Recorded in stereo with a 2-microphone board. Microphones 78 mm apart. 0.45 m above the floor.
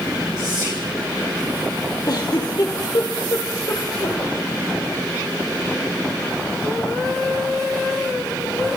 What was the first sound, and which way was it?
Whispering, 60° right (ahead or behind).